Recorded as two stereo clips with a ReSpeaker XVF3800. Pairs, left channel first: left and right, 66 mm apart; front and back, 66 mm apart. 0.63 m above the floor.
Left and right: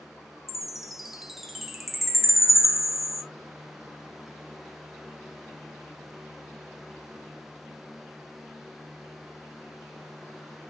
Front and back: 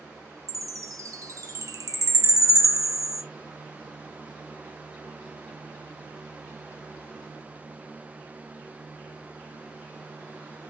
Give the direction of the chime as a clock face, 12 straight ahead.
6 o'clock.